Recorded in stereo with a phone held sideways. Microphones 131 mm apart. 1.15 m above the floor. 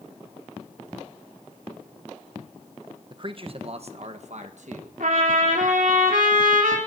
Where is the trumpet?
80° right, 3 m.